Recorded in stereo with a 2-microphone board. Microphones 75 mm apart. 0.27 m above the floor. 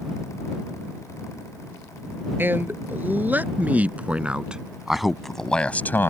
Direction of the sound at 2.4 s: 30° right (ahead or behind).